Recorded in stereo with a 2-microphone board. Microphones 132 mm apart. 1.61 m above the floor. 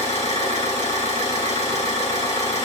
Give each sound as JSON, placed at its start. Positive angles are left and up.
{"t": 0.0, "sound": "an engine running", "side_deg": 50, "distance_m": 1.6}